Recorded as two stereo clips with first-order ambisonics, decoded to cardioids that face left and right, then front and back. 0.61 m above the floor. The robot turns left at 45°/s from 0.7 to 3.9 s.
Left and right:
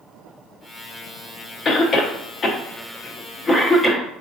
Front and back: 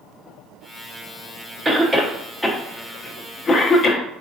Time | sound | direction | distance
1.6 | a cough | 115° left | 0.6 m